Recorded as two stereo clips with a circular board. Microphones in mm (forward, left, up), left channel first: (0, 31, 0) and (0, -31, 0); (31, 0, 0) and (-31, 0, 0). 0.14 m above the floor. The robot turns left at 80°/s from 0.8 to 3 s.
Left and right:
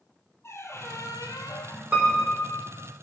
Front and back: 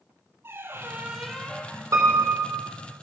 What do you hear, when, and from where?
0.4 s a squeak: 130° left, 1.1 m; by 1.8 s 50° left, 1.1 m
1.9 s a piano: 160° right, 4 m; by 2.7 s 140° left, 4 m